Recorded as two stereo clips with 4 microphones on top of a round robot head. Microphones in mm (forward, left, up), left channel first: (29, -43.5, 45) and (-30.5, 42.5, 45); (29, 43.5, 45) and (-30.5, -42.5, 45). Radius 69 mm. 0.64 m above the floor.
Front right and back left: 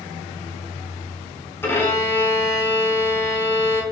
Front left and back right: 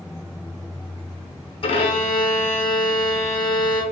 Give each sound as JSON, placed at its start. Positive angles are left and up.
{"t": 1.6, "sound": "a violin", "azimuth_deg": 15, "distance_m": 0.9}